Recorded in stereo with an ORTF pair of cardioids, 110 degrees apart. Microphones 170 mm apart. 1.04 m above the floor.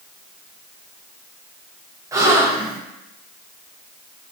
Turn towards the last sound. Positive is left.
turn(degrees=-20)